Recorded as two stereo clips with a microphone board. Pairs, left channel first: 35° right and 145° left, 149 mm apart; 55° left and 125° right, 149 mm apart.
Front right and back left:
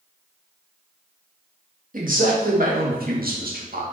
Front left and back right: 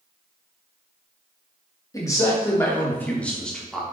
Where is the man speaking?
125° left, 2.5 m; by 3.8 s 145° left, 2 m.